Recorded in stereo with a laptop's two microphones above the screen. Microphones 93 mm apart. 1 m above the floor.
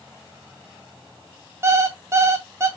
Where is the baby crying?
No baby crying in this recording.